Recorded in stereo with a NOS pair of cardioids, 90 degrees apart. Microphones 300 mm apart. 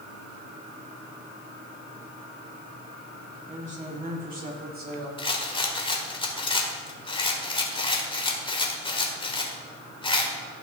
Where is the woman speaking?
25° right, 2.5 m; by 5.1 s 35° right, 3.5 m.